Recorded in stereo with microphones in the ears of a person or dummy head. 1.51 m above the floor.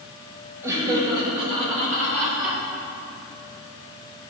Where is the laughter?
15° right (ahead or behind), 2 m; by 2.6 s 45° right (ahead or behind), 4 m.